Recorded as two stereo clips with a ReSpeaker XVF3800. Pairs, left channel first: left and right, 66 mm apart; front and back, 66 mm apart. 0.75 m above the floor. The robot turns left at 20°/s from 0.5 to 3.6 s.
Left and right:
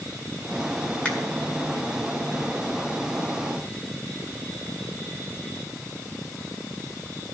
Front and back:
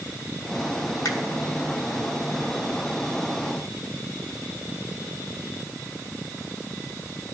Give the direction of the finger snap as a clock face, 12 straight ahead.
11 o'clock.